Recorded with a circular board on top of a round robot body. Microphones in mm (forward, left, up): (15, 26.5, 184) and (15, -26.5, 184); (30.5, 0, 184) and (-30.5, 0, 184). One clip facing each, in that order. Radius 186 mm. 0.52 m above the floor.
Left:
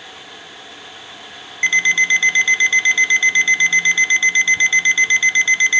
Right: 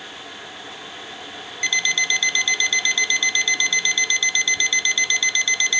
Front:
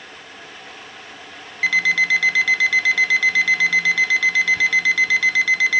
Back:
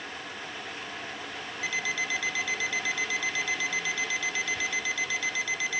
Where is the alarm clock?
30° left.